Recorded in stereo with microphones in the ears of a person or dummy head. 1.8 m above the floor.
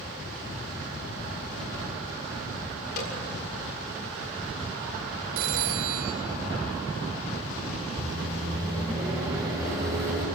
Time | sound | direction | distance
3.0 | a snare drum | 55° left (ahead or behind) | 7 m
5.4 | a phone ringing | 65° right (ahead or behind) | 2 m
8.0 | a microwave | 20° right (ahead or behind) | 7 m